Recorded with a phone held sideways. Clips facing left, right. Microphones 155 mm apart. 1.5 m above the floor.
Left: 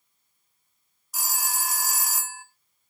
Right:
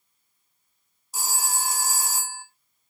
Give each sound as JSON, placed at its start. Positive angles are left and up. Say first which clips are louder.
{"t": 1.1, "sound": "a phone ringing", "louder": "right 2 dB", "side_deg": -30, "distance_m": 0.5}